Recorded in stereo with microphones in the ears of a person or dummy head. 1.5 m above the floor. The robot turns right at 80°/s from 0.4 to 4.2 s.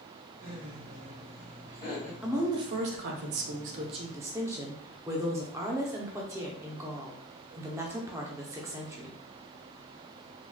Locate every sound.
0.4 s laughter: 85° right, 1.4 m; by 2.1 s 50° left, 1.4 m
2.2 s a woman speaking: 175° right, 0.5 m; by 9.2 s 20° right, 0.5 m